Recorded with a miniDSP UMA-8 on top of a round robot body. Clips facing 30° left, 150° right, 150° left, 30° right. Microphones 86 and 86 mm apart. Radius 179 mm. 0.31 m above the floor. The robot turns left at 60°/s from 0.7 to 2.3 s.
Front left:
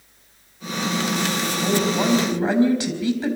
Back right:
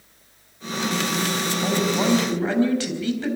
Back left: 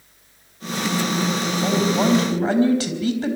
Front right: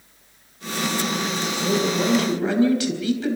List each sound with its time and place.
1.6 s a woman speaking: 150° left, 5 m; by 3.4 s 105° left, 5 m